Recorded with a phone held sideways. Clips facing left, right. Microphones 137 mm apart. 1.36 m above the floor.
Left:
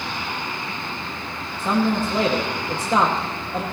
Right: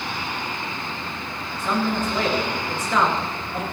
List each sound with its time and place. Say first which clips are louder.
1.6 s a man speaking: left 3 dB; 30° left (ahead or behind), 2 m